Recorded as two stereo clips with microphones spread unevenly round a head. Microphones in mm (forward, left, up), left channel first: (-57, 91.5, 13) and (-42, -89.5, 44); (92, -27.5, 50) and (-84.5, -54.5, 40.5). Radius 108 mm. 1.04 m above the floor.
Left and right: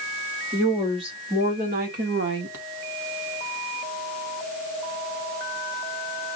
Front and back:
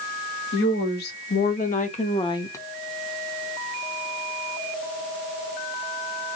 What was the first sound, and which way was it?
A woman speaking, 10° right.